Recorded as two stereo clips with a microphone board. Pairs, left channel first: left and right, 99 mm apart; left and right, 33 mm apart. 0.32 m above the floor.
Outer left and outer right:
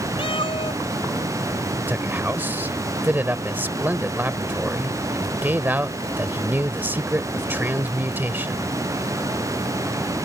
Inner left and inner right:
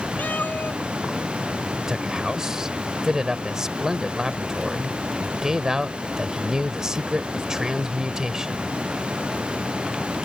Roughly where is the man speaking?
Centre.